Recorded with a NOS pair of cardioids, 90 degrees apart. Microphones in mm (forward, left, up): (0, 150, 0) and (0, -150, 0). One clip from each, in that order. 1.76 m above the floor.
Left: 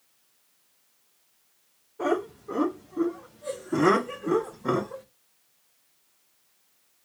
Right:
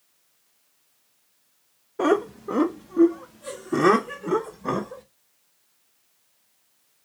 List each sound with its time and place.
2.0 s laughter: 70° right, 1.1 m; by 5.0 s straight ahead, 2.5 m